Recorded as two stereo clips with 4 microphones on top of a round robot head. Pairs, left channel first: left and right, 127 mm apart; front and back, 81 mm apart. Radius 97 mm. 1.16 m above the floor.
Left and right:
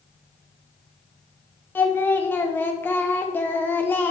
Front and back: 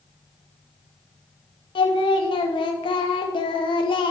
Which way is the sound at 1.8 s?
15° left.